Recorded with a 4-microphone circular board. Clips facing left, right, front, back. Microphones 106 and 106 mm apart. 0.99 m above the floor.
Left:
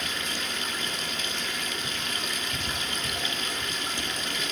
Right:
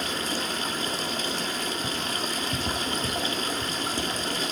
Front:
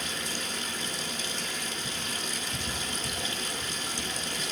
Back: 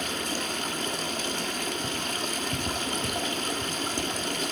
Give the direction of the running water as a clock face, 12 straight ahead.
5 o'clock.